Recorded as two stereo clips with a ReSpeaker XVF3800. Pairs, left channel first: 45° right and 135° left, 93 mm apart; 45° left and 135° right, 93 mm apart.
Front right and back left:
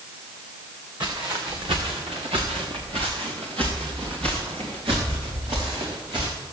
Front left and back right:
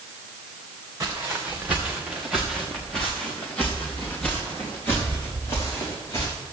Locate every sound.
1.0 s footsteps: 165° left, 3 m; by 6.3 s 105° left, 7.5 m